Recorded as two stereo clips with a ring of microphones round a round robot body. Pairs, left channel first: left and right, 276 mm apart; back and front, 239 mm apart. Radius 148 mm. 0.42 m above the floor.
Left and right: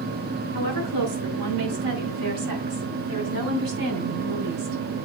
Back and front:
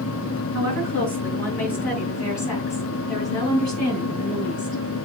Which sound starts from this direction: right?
A woman speaking, at 0.5 s.